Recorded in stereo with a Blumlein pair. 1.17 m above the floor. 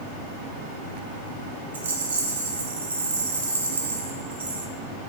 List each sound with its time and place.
1.7 s a rattle: 70° right, 0.5 m